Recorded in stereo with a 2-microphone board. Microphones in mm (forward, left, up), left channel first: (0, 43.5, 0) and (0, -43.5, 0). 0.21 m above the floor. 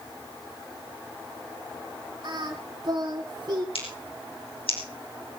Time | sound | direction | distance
2.2 | singing | 50° right (ahead or behind) | 3 m
3.8 | scissors | 75° left (ahead or behind) | 5.5 m